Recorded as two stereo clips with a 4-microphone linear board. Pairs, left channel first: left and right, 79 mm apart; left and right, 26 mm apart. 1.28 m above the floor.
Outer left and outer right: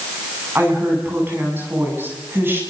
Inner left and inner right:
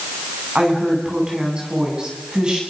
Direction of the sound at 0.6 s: 30° right (ahead or behind).